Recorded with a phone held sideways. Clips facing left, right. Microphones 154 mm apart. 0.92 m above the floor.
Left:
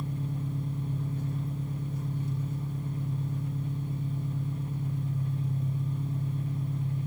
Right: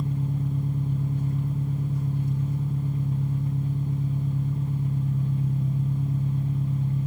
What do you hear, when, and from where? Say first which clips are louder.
0.0 s an engine running: right 6 dB; 70° right (ahead or behind), 6.5 m